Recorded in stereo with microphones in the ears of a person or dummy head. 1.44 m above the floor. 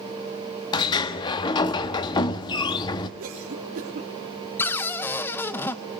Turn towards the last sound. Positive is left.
turn(degrees=10)  # may be behind; listen again after turning